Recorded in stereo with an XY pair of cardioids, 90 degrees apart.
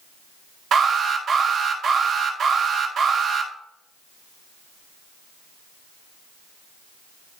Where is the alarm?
65° right, 6 m.